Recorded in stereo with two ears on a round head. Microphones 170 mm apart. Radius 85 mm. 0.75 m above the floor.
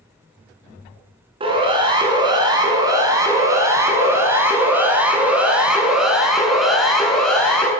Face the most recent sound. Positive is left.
turn(degrees=5)  # may be behind; listen again after turning